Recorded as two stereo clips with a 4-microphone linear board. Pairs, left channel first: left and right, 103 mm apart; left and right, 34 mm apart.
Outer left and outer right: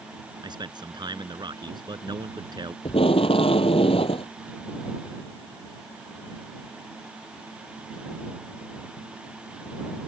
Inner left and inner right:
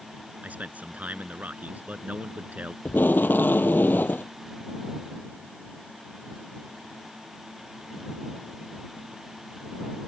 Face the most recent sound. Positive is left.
turn(degrees=65)  # may be behind; listen again after turning